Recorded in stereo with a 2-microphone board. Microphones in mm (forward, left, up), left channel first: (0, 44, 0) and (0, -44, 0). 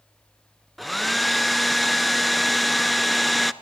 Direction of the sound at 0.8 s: Centre (ahead or behind).